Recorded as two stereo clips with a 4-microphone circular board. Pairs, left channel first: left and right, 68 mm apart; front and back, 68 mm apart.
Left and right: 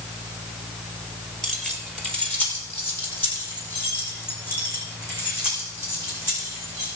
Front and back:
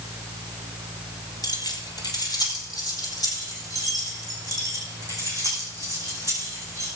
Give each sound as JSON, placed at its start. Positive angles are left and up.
{"t": 1.4, "sound": "keys jangling", "azimuth_deg": 5, "distance_m": 2.5}